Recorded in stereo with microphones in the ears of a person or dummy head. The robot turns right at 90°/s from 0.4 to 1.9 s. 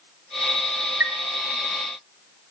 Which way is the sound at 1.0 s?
5° right (ahead or behind).